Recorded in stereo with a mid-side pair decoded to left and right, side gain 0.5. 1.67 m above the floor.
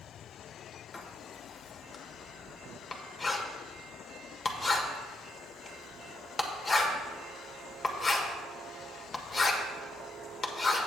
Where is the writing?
30° left, 1.4 m.